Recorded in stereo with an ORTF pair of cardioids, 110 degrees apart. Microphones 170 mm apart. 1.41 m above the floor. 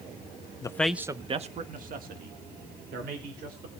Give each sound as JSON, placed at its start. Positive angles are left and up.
{"t": 0.6, "sound": "a man speaking", "azimuth_deg": 25, "distance_m": 0.9}